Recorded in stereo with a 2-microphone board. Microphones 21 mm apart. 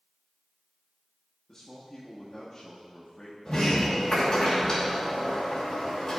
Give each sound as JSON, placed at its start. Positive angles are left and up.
{"t": 1.5, "sound": "a man speaking", "side_deg": 35, "distance_m": 1.0}
{"t": 3.5, "sound": "a sliding door", "side_deg": 35, "distance_m": 2.5}